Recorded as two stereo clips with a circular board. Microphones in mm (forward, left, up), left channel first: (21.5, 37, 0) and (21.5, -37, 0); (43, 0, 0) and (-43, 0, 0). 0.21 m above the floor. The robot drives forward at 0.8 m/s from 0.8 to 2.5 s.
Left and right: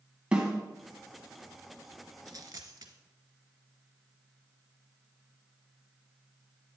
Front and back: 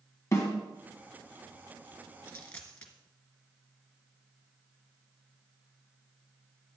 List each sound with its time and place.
0.3 s a snare drum: 25° right, 1.7 m
2.2 s a dropped coin: 60° right, 1.1 m; by 2.9 s 70° right, 1.0 m